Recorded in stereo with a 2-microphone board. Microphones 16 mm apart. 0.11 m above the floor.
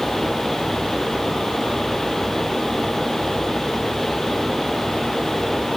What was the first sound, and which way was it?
Only background noise.